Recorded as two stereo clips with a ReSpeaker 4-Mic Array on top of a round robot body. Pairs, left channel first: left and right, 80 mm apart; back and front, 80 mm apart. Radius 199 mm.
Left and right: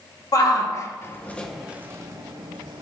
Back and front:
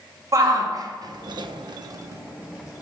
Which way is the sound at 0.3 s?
50° left.